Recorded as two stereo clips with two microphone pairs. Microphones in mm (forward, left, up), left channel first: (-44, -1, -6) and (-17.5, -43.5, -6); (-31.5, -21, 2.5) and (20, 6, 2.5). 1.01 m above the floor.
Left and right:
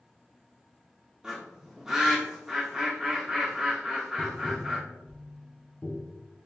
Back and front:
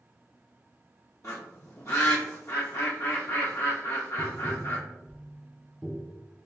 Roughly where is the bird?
Behind right.